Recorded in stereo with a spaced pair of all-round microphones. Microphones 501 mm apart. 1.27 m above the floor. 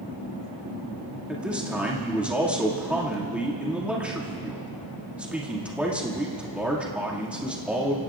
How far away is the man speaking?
About 2.5 m.